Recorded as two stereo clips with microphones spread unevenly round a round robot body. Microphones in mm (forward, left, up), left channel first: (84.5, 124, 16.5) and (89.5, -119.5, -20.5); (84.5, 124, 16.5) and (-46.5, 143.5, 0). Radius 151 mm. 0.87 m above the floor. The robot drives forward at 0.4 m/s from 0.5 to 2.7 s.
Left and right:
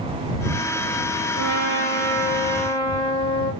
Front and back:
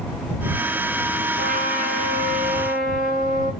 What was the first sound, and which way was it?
A trumpet, 140° right.